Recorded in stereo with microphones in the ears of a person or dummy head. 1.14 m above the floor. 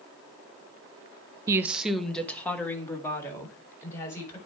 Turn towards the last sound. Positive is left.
turn(degrees=15)  # may be behind; listen again after turning